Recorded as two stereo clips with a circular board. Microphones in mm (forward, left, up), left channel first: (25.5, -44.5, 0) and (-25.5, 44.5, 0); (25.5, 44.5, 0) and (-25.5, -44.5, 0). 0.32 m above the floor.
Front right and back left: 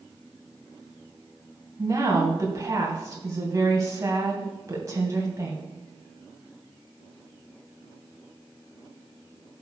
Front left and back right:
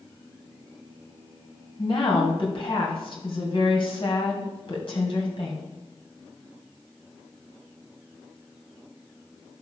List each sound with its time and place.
1.8 s a woman speaking: 70° left, 2 m